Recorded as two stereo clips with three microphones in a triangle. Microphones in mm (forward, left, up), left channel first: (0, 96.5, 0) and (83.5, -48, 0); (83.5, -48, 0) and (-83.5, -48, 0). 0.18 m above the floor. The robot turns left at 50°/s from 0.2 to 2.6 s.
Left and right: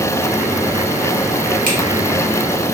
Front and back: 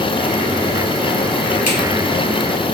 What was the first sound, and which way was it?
A finger snap, 30° right.